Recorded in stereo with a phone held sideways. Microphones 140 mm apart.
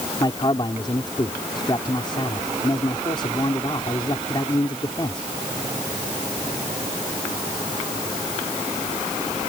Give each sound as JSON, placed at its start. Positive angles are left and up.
{"t": 0.2, "sound": "a man speaking", "side_deg": 35}